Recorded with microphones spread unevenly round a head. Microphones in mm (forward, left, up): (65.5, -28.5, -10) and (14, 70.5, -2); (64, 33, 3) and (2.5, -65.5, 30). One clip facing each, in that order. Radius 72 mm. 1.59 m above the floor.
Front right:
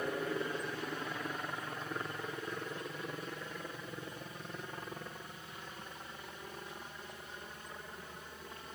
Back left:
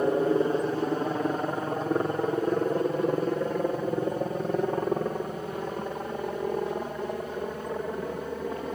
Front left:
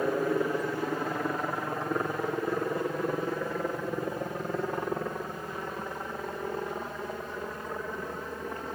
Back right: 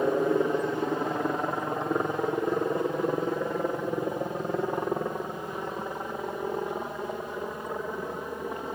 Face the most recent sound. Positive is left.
turn(degrees=160)